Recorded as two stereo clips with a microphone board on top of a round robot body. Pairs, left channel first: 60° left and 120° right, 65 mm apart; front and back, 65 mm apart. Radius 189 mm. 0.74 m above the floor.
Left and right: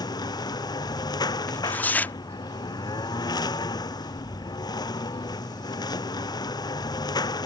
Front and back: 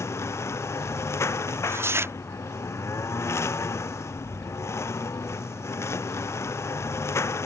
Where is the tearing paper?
130° left.